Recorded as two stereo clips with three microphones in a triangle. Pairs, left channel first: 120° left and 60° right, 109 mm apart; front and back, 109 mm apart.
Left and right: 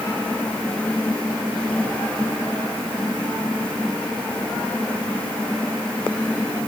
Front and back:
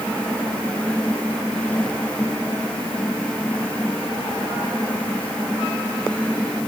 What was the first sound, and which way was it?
Only background noise.